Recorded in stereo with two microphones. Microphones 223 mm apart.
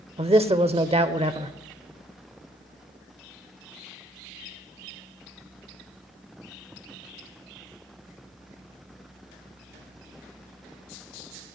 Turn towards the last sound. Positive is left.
turn(degrees=-25)  # may be behind; listen again after turning